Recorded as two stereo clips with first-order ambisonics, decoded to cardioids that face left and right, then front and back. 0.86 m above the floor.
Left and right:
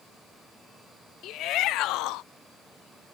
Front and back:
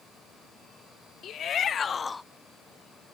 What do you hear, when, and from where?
1.2 s a shout: 50° left; by 2.2 s 80° left